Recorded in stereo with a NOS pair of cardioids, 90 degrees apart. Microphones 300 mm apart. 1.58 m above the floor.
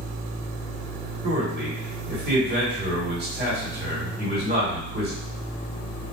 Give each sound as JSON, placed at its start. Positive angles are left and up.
{"t": 1.2, "sound": "a man speaking", "azimuth_deg": -35, "distance_m": 1.7}